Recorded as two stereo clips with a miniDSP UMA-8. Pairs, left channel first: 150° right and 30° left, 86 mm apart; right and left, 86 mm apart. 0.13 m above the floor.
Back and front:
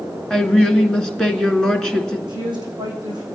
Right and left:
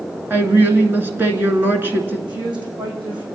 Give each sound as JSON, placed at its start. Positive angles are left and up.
{"t": 0.3, "sound": "a woman speaking", "azimuth_deg": 135, "distance_m": 1.7}
{"t": 2.3, "sound": "a woman speaking", "azimuth_deg": 65, "distance_m": 5.5}